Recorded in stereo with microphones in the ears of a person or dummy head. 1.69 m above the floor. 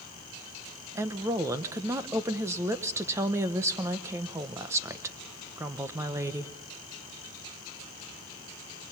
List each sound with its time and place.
0.9 s a woman speaking: 20° right (ahead or behind), 1.0 m